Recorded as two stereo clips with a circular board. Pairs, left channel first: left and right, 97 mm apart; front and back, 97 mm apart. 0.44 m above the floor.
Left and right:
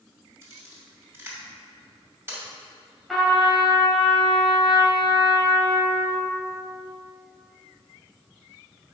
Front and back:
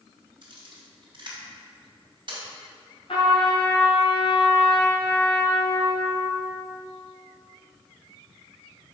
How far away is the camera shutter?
About 2.5 m.